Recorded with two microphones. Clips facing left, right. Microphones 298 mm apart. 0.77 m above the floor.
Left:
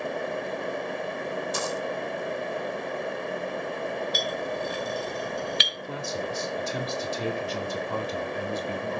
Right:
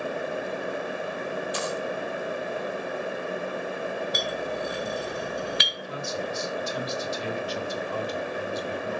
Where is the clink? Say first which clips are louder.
Even; 65° right (ahead or behind), 5 m.